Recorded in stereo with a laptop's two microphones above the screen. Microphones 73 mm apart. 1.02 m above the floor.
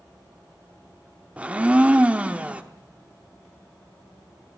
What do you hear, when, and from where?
1.4 s a blender: 15° right (ahead or behind), 0.8 m